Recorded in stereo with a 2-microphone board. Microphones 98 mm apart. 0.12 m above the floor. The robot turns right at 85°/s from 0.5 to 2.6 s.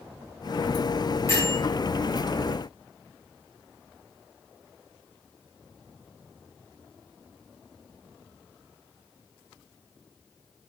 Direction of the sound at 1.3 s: 30° left (ahead or behind).